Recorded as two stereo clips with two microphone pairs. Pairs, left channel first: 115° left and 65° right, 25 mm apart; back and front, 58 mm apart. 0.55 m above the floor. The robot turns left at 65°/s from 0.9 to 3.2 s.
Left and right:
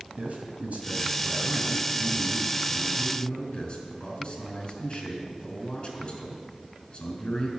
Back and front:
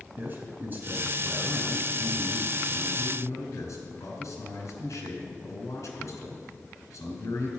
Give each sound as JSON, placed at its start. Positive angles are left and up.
{"t": 0.2, "sound": "a man speaking", "azimuth_deg": -50, "distance_m": 3.5}